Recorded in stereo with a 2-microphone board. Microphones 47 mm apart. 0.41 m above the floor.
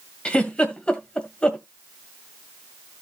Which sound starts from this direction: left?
A giggle, at 0.2 s.